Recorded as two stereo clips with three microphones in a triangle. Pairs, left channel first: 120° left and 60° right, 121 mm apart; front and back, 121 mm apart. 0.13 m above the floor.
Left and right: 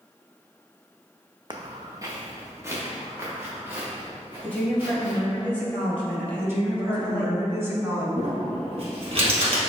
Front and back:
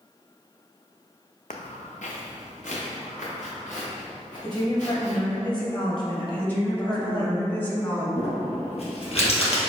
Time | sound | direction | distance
1.5 | footsteps | 5° right | 0.6 m
4.4 | a woman speaking | 45° left | 1.8 m
6.4 | a woman speaking | 45° right | 1.0 m
8.2 | crumpling | 25° right | 1.7 m